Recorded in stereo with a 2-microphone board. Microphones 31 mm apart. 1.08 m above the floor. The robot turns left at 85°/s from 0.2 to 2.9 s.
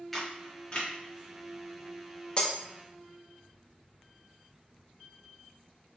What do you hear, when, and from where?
0.1 s a camera shutter: 5° left (ahead or behind), 0.9 m; by 0.9 s 40° left (ahead or behind), 0.9 m
2.4 s breaking glass: 35° left (ahead or behind), 0.6 m; by 2.6 s 25° left (ahead or behind), 0.6 m